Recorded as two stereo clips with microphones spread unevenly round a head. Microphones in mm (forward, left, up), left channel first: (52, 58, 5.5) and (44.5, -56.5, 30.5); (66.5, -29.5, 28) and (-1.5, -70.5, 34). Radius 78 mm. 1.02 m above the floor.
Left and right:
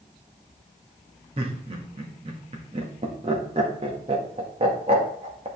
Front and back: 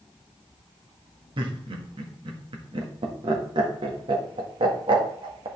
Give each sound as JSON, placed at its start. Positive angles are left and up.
{"t": 1.4, "sound": "laughter", "azimuth_deg": -150, "distance_m": 1.7}